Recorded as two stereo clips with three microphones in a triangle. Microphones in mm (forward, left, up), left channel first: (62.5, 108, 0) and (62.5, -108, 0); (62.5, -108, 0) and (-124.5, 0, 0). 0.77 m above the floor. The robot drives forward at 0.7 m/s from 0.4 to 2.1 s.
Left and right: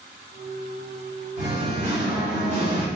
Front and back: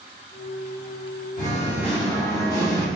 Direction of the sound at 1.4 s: 55° right.